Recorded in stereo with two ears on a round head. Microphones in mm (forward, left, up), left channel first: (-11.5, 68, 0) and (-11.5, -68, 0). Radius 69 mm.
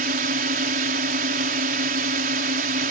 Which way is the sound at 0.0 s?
65° right (ahead or behind).